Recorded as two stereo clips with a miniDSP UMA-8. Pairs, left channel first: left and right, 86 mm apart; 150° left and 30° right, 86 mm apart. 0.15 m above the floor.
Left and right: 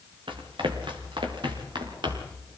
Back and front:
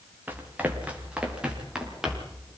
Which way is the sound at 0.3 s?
100° right.